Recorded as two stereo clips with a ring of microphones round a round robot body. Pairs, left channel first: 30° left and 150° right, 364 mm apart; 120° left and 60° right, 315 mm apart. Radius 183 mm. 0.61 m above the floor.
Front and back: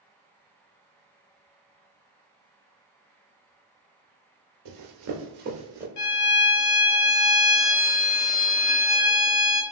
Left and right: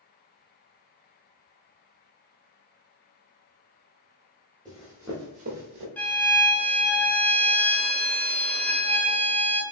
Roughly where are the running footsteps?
Behind right.